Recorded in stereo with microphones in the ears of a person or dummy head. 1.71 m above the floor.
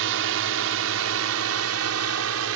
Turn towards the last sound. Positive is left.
turn(degrees=-80)